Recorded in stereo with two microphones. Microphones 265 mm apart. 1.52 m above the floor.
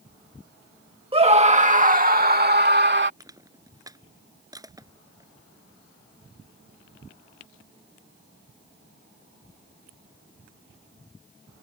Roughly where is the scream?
Right.